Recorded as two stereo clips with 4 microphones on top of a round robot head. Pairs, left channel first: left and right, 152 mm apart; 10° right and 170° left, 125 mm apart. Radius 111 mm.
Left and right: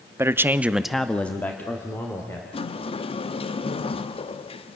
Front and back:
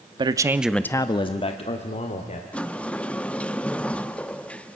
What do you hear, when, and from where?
0.2 s a man speaking: 160° right, 0.9 m; by 2.4 s 15° left, 2 m
2.5 s a sliding door: 65° left, 0.8 m